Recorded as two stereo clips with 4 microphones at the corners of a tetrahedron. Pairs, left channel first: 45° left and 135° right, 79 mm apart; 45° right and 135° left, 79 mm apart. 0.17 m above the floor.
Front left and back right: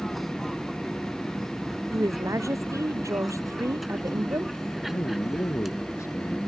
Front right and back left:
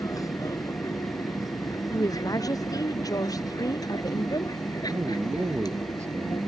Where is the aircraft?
45° right; by 6.5 s 50° right.